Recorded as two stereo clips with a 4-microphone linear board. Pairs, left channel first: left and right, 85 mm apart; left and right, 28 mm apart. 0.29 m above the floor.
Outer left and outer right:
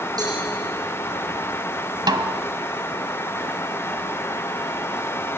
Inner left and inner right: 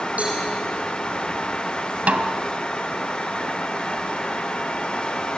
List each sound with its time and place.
0.2 s a cowbell: 50° right (ahead or behind), 8.5 m
2.1 s a snare drum: 55° right (ahead or behind), 1.1 m